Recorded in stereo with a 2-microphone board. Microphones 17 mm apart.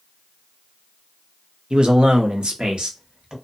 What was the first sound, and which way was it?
A man speaking, 55° right (ahead or behind).